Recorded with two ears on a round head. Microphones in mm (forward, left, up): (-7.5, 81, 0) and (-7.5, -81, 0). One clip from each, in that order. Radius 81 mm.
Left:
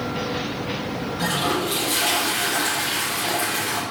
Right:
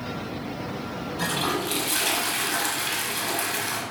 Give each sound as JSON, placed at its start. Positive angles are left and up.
{"t": 1.2, "sound": "a toilet flushing", "side_deg": -25, "distance_m": 0.9}